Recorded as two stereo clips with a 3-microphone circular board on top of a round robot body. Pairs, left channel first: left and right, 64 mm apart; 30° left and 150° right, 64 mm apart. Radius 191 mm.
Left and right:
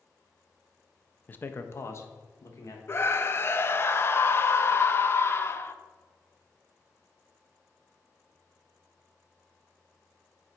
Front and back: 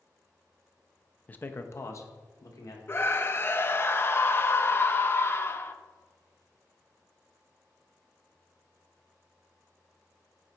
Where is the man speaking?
65° left, 0.8 m; by 2.8 s 55° left, 1.6 m.